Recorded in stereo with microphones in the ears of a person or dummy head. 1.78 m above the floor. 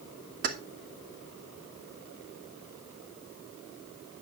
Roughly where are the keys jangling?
Right.